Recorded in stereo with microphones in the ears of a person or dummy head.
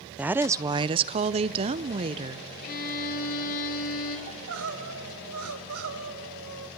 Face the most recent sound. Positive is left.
turn(degrees=-75)  # may be behind; listen again after turning